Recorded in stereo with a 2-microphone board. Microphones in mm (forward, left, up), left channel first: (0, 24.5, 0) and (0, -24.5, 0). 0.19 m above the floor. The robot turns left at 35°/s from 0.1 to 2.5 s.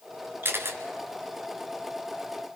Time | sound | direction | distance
0.4 | a camera shutter | 50° right (ahead or behind) | 2.5 m